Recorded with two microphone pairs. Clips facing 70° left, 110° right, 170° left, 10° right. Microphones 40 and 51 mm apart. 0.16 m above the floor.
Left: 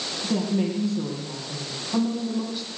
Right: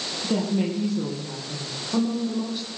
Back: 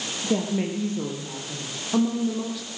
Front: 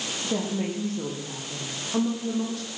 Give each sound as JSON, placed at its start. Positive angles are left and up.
{"t": 0.2, "sound": "a woman speaking", "azimuth_deg": 175, "distance_m": 4.0}